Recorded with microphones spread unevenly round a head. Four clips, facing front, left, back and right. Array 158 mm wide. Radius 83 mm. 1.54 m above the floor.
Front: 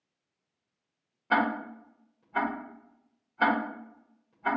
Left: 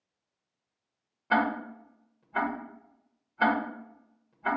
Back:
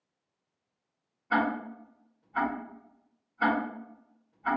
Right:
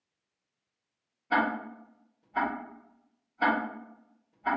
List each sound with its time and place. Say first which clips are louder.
1.3 s ticking: left 1 dB, front 1 dB; 40° left, 1.4 m